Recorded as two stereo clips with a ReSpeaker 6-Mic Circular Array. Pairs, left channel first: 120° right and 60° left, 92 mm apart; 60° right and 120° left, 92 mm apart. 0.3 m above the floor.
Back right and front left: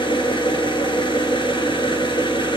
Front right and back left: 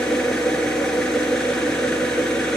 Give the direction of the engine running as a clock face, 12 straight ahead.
5 o'clock.